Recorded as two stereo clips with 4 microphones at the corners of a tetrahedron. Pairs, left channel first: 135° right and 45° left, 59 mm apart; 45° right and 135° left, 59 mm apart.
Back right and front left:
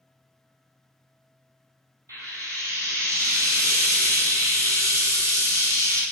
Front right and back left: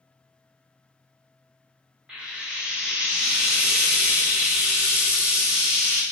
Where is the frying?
60° left, 1.0 m.